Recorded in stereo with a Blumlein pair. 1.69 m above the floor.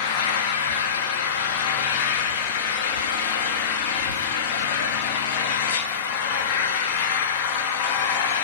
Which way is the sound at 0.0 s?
50° left.